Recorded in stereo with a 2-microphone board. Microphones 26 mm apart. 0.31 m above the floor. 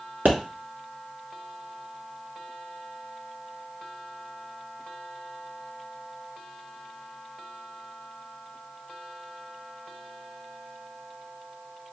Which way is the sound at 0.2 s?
75° right (ahead or behind).